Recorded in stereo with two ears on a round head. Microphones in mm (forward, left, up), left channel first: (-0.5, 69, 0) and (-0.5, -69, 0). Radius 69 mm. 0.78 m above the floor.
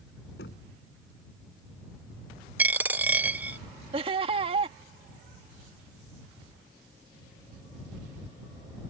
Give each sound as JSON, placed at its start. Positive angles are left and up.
{"t": 0.4, "sound": "knocking", "side_deg": 80}
{"t": 2.6, "sound": "a dropped coin", "side_deg": -15}
{"t": 3.9, "sound": "laughter", "side_deg": -35}